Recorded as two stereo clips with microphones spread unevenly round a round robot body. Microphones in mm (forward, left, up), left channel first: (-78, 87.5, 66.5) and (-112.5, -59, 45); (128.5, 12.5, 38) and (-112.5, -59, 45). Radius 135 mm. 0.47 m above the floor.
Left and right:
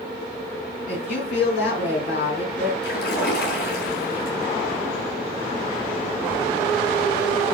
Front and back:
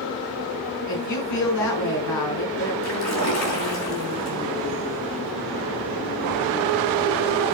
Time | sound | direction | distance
0.9 | a woman speaking | 20° left | 4.5 m
2.8 | a splash | 40° left | 4.5 m